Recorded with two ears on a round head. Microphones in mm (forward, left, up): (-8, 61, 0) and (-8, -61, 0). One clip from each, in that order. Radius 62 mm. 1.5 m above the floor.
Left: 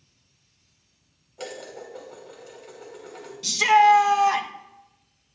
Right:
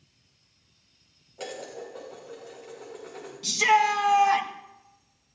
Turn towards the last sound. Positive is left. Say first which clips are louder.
# left 5 dB
turn(degrees=25)  # may be behind; listen again after turning